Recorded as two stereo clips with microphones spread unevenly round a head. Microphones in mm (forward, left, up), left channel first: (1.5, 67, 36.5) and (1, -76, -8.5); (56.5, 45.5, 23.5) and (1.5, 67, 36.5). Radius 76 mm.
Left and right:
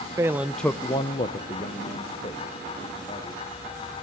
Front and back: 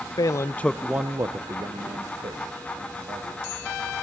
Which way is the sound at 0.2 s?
10° right.